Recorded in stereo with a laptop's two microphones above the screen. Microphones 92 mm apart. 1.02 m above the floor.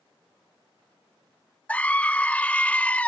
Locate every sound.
1.7 s a scream: 15° left (ahead or behind)